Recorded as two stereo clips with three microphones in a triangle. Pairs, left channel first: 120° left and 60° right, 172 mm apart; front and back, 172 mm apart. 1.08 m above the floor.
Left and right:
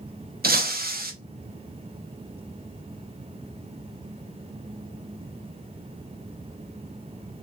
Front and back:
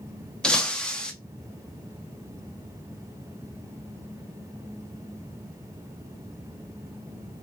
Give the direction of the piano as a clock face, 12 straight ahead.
I don't hear a piano.